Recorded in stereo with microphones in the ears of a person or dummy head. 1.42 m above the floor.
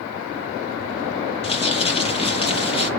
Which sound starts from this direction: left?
Crumpling, at 1.4 s.